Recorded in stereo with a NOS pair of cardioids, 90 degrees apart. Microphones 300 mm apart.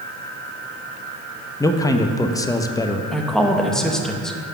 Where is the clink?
No clink in this recording.